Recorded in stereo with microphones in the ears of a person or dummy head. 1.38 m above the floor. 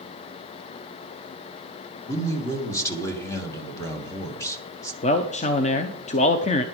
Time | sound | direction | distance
2.1 | a man speaking | 15° left (ahead or behind) | 1.8 m
5.0 | a man speaking | 35° left (ahead or behind) | 0.7 m